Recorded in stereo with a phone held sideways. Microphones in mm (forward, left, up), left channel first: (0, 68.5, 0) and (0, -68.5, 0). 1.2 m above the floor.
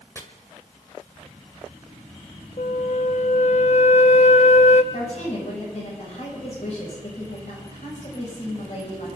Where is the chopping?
20° left (ahead or behind), 1.7 m.